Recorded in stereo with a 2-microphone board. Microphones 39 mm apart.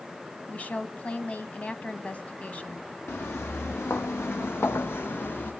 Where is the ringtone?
I don't hear a ringtone.